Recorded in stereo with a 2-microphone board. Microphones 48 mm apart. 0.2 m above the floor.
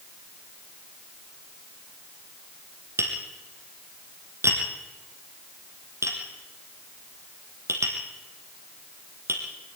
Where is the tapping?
85° right, 3 m.